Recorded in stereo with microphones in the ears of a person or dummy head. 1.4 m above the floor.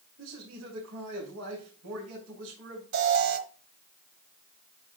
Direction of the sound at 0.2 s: 65° right (ahead or behind).